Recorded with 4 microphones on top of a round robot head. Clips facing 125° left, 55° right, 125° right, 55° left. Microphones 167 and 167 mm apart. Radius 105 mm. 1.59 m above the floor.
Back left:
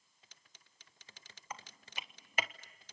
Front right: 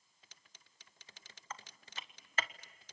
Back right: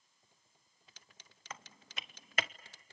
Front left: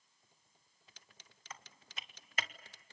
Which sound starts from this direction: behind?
Typing on a keyboard, at 1.5 s.